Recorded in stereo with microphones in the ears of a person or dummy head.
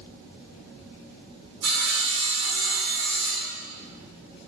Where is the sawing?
85° right, 2.0 m.